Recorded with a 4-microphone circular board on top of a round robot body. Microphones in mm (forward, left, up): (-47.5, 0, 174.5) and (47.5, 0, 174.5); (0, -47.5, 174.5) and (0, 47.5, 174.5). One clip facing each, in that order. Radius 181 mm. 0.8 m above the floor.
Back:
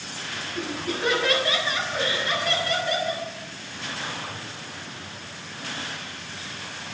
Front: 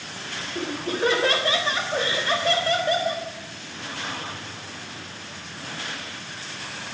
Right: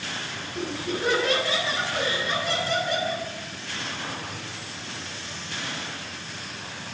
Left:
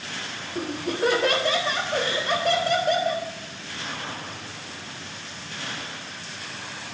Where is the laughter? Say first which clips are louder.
Front 3 dB, left 3 dB; 55° left, 4 m.